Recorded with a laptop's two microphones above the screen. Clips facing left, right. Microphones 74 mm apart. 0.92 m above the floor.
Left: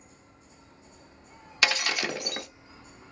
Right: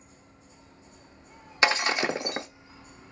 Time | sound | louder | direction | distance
1.6 | breaking glass | right 4 dB | 25° right (ahead or behind) | 0.5 m